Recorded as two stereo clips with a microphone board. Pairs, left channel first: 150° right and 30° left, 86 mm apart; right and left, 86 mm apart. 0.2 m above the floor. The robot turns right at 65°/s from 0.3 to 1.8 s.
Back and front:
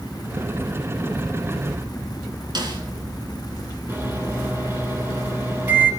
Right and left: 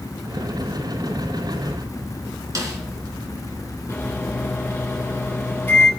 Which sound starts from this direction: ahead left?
A snare drum, at 2.5 s.